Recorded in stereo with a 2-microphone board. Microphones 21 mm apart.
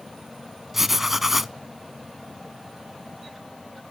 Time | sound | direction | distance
0.7 | writing | 15° right (ahead or behind) | 0.5 m